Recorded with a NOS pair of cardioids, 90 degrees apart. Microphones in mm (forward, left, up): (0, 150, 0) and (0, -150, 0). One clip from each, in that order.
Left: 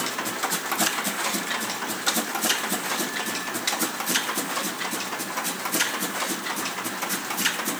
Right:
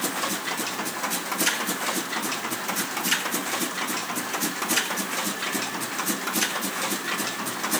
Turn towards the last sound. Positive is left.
No sound to turn to.